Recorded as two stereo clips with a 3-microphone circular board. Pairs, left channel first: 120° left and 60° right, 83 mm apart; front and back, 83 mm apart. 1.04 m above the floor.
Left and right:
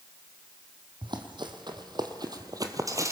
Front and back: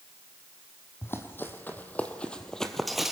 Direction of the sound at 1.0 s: 60° right.